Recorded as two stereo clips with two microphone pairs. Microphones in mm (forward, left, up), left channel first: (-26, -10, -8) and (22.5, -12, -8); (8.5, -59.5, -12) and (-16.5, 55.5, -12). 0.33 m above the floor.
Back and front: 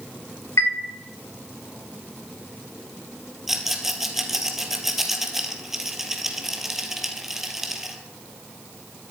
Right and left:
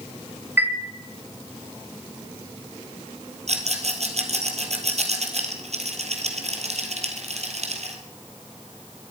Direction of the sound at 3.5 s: 85° left.